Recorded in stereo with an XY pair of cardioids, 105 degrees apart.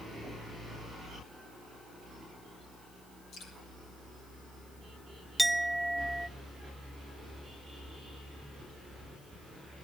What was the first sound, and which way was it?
Dripping, 70° left.